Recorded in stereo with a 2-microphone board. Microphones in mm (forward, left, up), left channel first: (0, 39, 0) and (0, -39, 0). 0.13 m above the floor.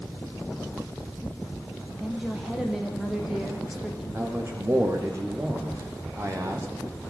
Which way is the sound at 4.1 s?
35° right (ahead or behind).